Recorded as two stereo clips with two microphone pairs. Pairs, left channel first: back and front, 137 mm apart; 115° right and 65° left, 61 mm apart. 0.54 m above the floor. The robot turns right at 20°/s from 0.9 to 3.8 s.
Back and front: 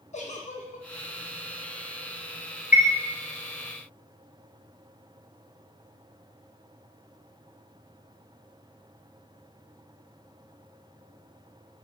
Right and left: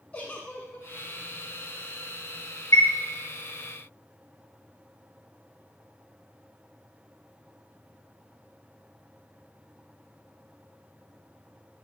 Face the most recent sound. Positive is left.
turn(degrees=-65)